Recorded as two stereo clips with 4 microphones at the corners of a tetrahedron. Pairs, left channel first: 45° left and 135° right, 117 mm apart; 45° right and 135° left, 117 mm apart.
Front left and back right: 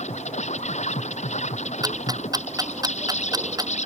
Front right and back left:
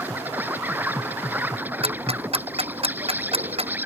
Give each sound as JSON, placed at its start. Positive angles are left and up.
{"t": 0.0, "sound": "an insect", "azimuth_deg": 60}
{"t": 1.8, "sound": "ticking", "azimuth_deg": 170}